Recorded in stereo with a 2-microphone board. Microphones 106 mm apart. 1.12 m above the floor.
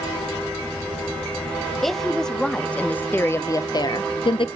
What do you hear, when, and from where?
1.8 s a woman speaking: 5° left (ahead or behind), 1.5 m; by 4.5 s 50° left (ahead or behind), 0.6 m